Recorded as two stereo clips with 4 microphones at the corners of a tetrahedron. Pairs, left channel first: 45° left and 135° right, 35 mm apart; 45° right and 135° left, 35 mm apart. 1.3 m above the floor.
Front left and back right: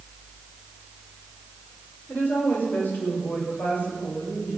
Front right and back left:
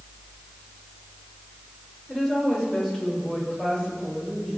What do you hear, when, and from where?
2.1 s a woman speaking: 30° left, 5 m; by 4.6 s 35° left, 8.5 m